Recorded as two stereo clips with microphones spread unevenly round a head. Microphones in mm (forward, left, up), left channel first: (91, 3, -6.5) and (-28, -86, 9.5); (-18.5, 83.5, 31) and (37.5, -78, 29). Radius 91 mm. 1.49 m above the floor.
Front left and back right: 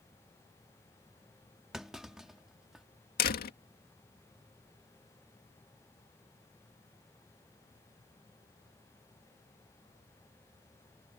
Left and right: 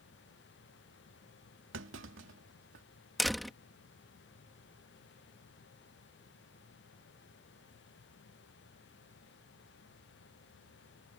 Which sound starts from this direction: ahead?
A door slam, at 3.2 s.